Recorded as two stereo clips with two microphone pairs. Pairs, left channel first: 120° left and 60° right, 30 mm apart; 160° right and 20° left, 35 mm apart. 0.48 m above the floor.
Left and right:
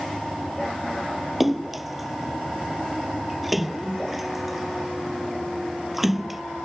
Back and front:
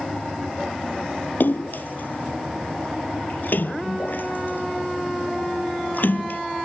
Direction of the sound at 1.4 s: 140° right.